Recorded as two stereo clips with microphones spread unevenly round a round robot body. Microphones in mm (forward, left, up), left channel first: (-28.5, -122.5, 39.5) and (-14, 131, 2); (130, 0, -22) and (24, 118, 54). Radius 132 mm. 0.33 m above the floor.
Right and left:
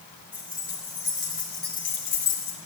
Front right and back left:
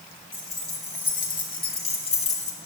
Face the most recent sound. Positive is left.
turn(degrees=-20)